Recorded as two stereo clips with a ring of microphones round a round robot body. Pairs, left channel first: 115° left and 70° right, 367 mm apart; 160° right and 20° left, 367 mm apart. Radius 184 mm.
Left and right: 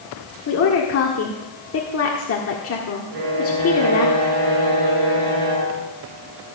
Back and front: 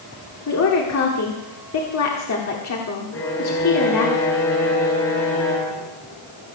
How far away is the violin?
About 4.5 m.